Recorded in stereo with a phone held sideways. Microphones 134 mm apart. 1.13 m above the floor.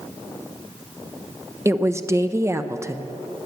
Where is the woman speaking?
20° right (ahead or behind), 0.7 m.